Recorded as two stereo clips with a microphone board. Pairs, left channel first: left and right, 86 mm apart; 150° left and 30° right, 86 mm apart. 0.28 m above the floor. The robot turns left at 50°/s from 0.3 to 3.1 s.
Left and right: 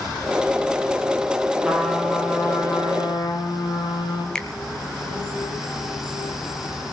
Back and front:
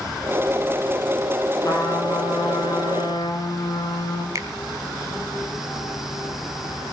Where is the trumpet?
165° right, 6.5 m; by 4.2 s 115° left, 6.5 m.